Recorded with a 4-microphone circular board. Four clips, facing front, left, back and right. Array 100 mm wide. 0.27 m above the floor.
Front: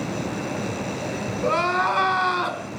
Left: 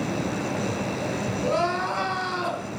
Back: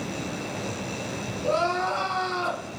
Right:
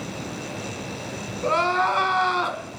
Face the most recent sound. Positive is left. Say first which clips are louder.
# right 4 dB, front 3 dB
turn(degrees=-45)